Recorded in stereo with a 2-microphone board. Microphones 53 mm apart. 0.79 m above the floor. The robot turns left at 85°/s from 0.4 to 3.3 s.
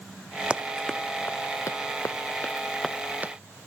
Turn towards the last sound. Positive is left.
turn(degrees=-35)  # may be behind; listen again after turning